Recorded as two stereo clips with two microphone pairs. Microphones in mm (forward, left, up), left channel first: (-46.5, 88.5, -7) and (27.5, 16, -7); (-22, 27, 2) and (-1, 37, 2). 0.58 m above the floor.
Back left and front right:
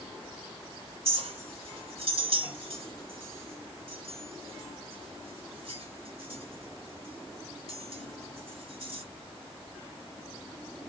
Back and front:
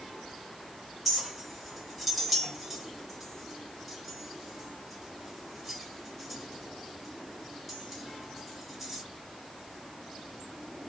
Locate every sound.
1.1 s a clink: 65° right, 1.4 m